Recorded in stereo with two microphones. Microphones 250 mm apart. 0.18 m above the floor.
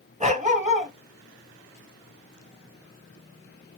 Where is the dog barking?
25° right (ahead or behind), 1.1 m.